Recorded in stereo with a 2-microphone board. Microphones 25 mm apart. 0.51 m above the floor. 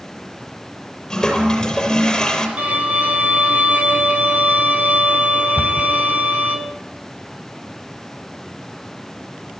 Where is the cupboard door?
70° right (ahead or behind), 3 m.